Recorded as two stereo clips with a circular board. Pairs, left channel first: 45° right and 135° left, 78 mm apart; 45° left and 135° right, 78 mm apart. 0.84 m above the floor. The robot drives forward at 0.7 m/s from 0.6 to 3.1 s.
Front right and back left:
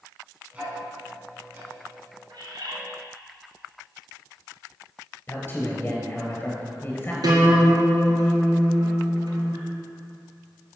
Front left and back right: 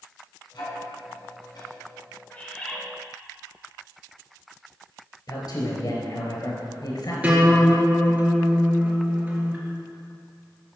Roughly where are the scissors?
No scissors in this recording.